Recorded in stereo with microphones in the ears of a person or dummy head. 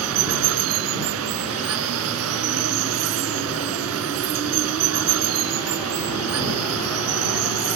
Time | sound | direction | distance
0.0 | running water | 80° right | ?